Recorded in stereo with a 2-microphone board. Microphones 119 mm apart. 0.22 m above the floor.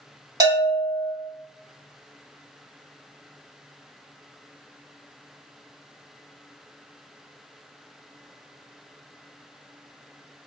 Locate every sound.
0.4 s a bell: 35° right (ahead or behind), 1.3 m